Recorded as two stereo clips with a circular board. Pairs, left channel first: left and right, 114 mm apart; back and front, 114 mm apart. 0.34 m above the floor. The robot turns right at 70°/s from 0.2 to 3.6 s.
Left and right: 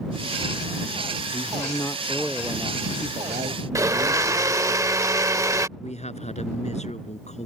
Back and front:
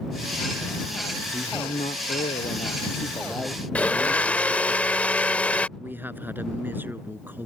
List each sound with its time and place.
1.3 s a man speaking: 115° left; by 4.8 s 85° right
3.8 s a blender: 115° right
5.8 s a man speaking: 75° left